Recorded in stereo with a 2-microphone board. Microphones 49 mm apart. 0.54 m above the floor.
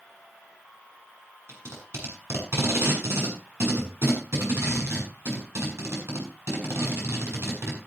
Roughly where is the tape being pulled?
Right.